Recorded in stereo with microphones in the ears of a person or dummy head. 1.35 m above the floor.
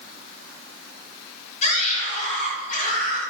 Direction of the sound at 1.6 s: 40° left (ahead or behind).